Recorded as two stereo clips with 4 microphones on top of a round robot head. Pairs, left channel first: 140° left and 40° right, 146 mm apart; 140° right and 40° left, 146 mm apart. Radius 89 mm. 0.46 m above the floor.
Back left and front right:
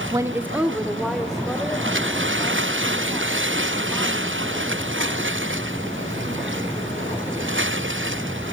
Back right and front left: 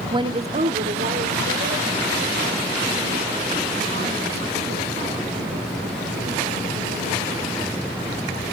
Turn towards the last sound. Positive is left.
turn(degrees=65)